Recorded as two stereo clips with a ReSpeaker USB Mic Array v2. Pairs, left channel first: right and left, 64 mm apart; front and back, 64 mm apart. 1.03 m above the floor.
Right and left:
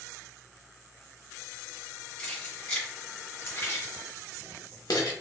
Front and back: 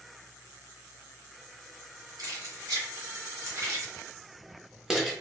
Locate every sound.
2.2 s keys jangling: 160° right, 1.9 m; by 5.1 s 90° right, 1.0 m